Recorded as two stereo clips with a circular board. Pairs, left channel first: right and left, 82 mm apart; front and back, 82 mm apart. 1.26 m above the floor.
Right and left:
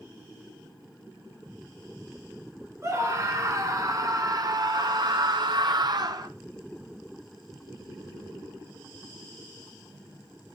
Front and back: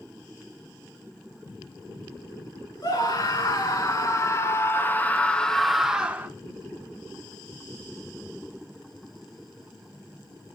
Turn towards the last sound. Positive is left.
turn(degrees=120)